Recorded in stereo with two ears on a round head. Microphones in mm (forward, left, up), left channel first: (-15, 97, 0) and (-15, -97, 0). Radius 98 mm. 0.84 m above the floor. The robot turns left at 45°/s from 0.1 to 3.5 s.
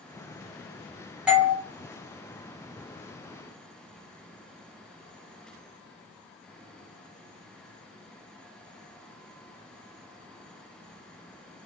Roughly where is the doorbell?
Centre.